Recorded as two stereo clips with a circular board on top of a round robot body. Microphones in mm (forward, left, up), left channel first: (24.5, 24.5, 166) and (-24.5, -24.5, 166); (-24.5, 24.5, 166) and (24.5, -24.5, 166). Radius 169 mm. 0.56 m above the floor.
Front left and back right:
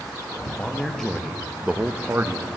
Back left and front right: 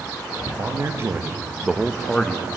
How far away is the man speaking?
About 0.9 m.